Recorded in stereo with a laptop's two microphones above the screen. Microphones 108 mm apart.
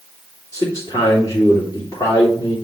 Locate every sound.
0.5 s a man speaking: 35° left (ahead or behind), 3 m